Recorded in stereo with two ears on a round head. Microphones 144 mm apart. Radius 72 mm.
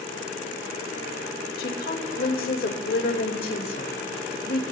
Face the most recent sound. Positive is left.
turn(degrees=60)  # may be behind; listen again after turning